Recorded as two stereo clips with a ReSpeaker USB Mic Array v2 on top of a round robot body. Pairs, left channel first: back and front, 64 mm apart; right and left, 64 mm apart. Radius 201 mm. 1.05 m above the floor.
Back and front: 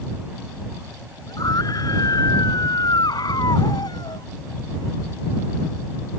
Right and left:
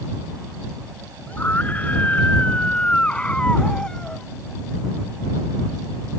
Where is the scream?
155° right; by 4.3 s 170° right.